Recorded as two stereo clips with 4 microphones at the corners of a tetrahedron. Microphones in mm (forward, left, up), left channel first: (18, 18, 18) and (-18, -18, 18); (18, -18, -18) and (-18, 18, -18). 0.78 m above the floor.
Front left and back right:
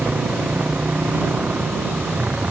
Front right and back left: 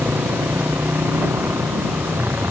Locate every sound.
0.0 s a motorcycle: 170° left